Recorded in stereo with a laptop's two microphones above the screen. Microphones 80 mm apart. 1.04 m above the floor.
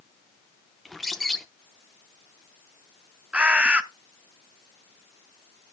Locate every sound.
0.8 s a bird: centre (ahead or behind), 0.6 m
3.3 s a bird: 15° right (ahead or behind), 0.6 m